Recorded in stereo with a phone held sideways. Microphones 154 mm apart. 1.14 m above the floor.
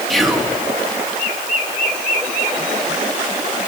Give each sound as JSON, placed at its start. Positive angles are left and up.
{"t": 0.1, "sound": "whispering", "side_deg": 0, "distance_m": 1.5}